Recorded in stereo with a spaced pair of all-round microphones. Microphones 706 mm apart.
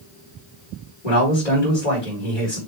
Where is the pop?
I don't hear a pop.